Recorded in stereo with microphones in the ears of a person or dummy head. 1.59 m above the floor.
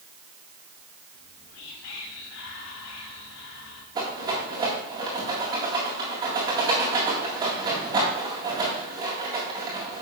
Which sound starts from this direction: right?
A rattle, at 4.0 s.